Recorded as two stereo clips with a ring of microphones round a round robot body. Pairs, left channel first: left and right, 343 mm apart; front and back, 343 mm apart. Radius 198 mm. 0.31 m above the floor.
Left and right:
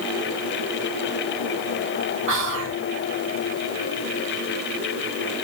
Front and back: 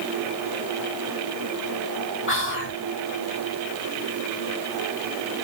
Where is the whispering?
45° right, 1.8 m.